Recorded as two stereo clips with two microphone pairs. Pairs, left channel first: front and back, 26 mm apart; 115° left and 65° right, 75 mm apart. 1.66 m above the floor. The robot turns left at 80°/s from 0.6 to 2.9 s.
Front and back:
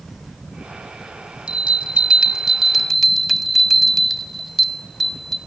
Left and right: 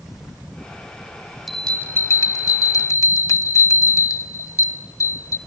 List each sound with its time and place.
1.5 s a bell: 155° right, 1.1 m; by 5.4 s 90° left, 1.1 m